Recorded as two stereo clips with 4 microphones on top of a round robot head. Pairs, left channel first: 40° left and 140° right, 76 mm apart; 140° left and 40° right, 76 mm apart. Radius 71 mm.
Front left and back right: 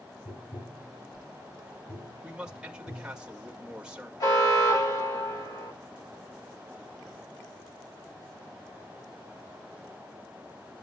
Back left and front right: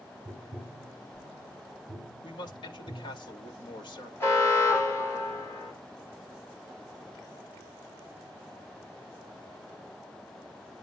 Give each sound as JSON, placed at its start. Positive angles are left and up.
{"t": 0.2, "sound": "tapping", "azimuth_deg": 65, "distance_m": 4.5}
{"t": 2.2, "sound": "a man speaking", "azimuth_deg": 140, "distance_m": 2.0}
{"t": 4.2, "sound": "an alarm", "azimuth_deg": 80, "distance_m": 4.0}